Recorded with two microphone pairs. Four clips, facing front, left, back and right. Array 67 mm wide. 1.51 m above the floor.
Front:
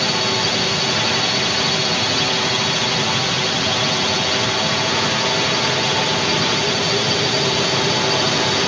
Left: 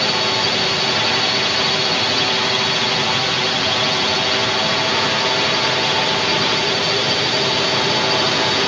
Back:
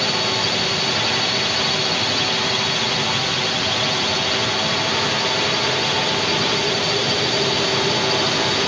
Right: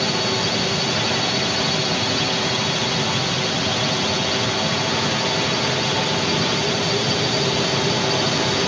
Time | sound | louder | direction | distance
0.0 | a drone | left 3 dB, front 2 dB | 70° left | ?